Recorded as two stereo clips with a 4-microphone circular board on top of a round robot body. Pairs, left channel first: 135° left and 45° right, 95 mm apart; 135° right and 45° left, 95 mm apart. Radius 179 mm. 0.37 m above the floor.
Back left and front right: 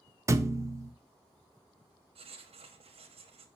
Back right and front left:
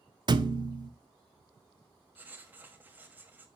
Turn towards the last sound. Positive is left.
turn(degrees=-25)